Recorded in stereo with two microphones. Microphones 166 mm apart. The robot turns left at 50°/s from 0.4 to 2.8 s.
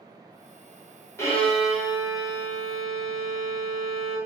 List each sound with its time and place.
1.2 s a violin: 25° left, 0.8 m; by 4.2 s 55° right, 0.8 m